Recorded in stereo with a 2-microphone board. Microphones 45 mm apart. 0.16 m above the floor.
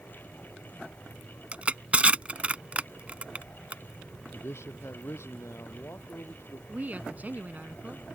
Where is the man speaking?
75° left (ahead or behind).